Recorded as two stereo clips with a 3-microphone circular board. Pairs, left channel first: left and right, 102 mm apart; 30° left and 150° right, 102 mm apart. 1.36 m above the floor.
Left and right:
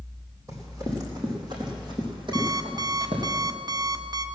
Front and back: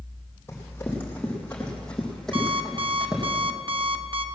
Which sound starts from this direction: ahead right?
Running footsteps, at 0.5 s.